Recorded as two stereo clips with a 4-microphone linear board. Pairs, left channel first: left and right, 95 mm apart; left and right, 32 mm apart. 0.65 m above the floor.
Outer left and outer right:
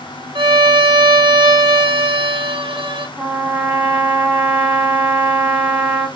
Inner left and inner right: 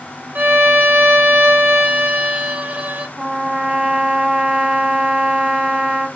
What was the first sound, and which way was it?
A violin, 60° right (ahead or behind).